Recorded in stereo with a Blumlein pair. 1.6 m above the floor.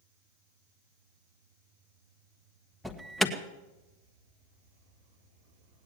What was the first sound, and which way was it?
An alarm, straight ahead.